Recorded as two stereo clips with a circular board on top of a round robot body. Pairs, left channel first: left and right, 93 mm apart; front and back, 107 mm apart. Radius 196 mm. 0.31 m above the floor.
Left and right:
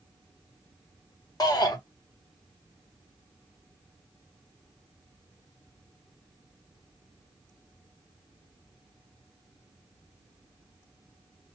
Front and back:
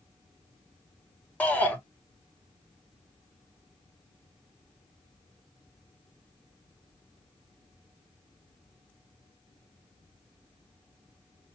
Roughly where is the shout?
Left.